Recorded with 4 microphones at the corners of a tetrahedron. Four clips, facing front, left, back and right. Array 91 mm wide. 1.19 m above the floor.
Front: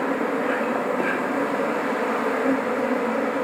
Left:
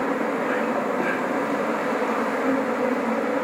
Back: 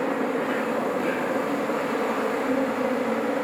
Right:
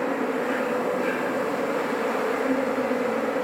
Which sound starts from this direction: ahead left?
An insect, at 0.0 s.